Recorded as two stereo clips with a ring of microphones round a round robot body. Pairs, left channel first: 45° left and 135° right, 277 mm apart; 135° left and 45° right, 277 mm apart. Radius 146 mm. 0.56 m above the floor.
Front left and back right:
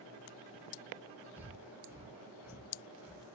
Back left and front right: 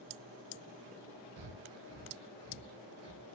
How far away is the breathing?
About 1.6 m.